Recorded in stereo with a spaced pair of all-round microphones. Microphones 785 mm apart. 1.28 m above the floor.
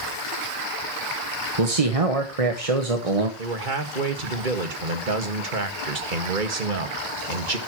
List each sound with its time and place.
1.6 s a man speaking: 45° right (ahead or behind), 1.6 m
3.4 s a man speaking: 80° right, 2 m